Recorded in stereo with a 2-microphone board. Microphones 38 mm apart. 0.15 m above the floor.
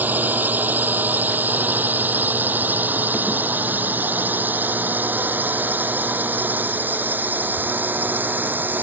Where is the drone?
50° right (ahead or behind); by 8.8 s 55° right (ahead or behind).